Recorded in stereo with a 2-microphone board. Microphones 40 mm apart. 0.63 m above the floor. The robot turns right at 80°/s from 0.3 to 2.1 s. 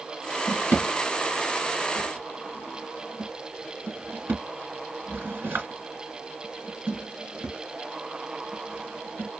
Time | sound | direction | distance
0.5 | a drawer | 70° left (ahead or behind) | 2.5 m